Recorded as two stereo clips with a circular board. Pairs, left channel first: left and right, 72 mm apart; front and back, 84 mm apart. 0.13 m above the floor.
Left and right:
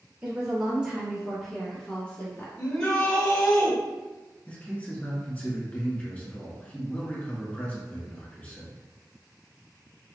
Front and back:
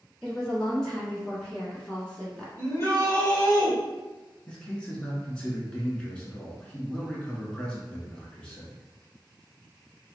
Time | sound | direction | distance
0.2 | a woman speaking | 75° right | 1.7 m
2.6 | a shout | 15° left | 1.5 m
4.5 | a man speaking | 55° left | 1.2 m